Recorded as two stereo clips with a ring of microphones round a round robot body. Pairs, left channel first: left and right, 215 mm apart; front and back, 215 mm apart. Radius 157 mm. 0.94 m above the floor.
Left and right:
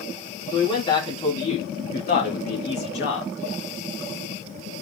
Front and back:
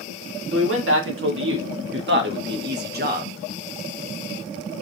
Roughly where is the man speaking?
Behind.